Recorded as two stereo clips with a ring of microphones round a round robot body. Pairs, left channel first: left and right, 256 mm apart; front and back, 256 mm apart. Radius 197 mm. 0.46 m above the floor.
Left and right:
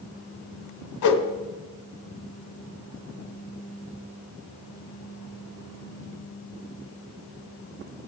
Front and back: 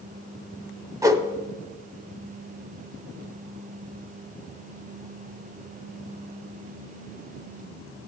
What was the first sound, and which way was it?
A whoosh, 100° left.